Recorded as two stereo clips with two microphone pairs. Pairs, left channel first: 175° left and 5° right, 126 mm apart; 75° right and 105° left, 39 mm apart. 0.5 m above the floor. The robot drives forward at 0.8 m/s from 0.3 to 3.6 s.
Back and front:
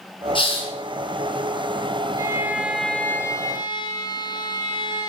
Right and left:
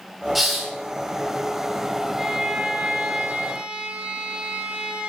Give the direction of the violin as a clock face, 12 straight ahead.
11 o'clock.